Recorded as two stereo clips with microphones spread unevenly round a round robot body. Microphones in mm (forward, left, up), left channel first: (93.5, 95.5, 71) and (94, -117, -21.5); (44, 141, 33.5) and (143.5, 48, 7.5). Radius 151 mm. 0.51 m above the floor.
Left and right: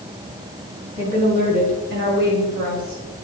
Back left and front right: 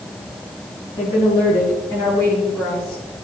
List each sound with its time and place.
1.0 s a woman speaking: 150° right, 6 m; by 3.0 s 140° right, 6.5 m